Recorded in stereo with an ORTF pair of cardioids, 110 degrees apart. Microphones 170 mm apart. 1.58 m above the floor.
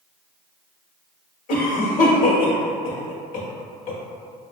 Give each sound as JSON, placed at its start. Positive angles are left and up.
{"t": 1.5, "sound": "a cough", "azimuth_deg": 55, "distance_m": 1.2}